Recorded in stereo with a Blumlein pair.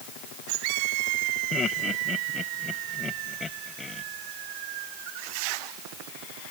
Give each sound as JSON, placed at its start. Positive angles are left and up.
{"t": 1.5, "sound": "laughter", "azimuth_deg": 20}